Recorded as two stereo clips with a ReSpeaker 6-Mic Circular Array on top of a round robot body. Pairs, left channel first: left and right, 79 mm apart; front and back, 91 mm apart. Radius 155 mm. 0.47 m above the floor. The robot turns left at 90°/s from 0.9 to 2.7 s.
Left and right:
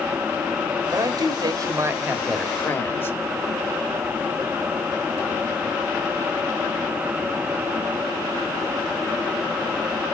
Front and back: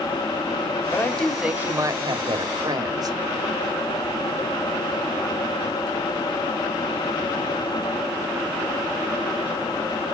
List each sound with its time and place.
0.9 s a woman speaking: 55° right, 1.8 m; by 3.2 s 145° left, 1.8 m